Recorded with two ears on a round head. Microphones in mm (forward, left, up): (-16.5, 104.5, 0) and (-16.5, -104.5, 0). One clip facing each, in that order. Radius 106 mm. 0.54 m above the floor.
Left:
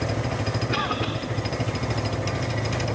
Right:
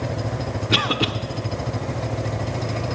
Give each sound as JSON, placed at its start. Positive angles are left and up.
{"t": 0.7, "sound": "a cough", "side_deg": -45, "distance_m": 0.9}